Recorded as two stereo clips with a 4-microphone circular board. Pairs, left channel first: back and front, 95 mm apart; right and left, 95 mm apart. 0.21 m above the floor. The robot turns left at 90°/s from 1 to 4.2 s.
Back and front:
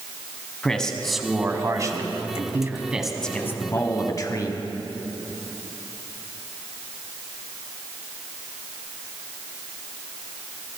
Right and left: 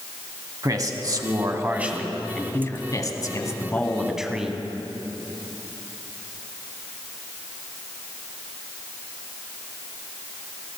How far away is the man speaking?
About 1.4 m.